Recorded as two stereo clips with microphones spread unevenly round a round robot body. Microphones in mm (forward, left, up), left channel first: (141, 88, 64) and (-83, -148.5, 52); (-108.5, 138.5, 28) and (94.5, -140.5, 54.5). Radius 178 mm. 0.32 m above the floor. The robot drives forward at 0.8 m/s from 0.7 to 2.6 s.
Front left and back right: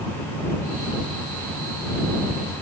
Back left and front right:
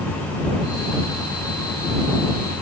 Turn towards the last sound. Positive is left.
No sound to turn to.